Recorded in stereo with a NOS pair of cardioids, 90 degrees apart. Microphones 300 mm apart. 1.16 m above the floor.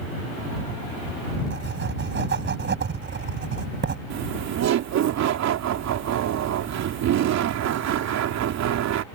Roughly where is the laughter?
Right.